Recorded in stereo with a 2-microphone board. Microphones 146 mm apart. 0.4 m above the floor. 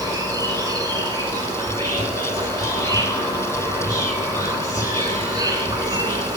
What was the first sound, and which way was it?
An insect, 25° right (ahead or behind).